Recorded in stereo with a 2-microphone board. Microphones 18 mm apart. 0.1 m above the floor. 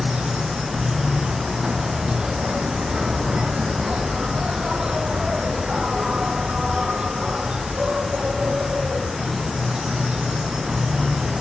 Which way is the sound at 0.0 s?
60° right (ahead or behind).